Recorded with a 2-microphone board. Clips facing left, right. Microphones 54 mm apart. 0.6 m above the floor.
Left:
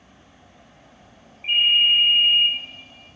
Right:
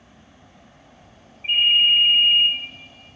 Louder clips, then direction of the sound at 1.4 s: Right 1 dB; 35° left (ahead or behind).